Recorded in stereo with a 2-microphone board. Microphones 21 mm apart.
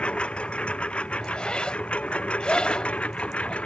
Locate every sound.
0.0 s a lawn mower: 70° left (ahead or behind); by 3.7 s 85° left
1.2 s a zipper: 55° left (ahead or behind)